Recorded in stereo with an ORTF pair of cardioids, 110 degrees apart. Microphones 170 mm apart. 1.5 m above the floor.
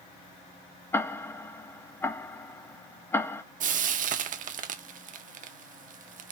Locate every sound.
0.9 s ticking: 15° left, 0.7 m
3.6 s frying: 50° right, 0.8 m